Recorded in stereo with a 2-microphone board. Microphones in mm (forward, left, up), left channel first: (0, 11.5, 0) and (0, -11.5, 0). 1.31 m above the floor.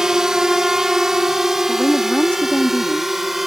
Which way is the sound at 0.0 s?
25° right (ahead or behind).